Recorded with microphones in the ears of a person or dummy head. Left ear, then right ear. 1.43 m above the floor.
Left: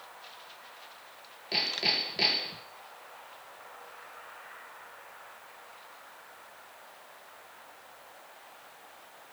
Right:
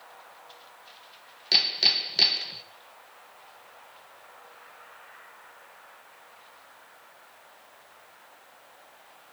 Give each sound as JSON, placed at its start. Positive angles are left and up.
{"t": 1.5, "sound": "hammering", "side_deg": -45, "distance_m": 1.5}